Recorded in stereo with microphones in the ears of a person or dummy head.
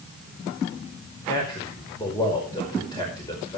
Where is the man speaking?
15° left (ahead or behind), 5 m.